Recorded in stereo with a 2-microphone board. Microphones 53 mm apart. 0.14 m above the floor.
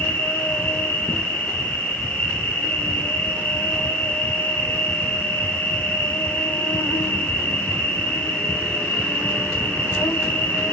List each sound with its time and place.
0.0 s an insect: 35° left (ahead or behind), 1.6 m